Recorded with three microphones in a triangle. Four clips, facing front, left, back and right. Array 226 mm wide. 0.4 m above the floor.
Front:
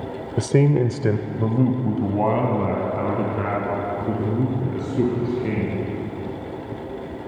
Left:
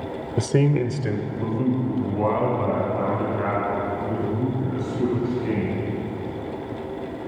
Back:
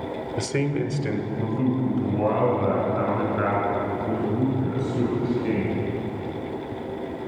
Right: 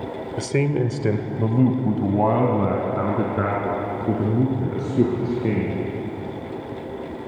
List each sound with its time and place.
0.4 s a man speaking: 40° left, 1.1 m; by 5.7 s 75° right, 7 m